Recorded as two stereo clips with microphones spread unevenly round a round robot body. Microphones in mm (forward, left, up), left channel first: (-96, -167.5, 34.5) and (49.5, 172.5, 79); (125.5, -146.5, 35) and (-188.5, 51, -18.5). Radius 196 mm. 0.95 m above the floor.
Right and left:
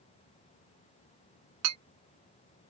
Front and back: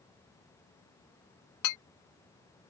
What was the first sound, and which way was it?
A clink, 15° left.